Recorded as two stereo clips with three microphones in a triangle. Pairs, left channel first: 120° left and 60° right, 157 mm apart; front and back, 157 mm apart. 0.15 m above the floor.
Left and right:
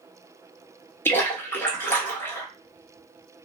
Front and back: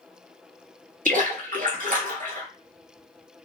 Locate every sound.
1.1 s a splash: 165° right, 1.3 m